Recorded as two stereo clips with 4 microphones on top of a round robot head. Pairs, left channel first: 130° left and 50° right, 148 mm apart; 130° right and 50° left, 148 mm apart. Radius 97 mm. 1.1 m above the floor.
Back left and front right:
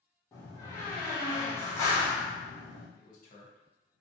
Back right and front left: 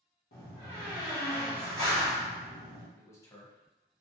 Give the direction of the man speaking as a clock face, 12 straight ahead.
7 o'clock.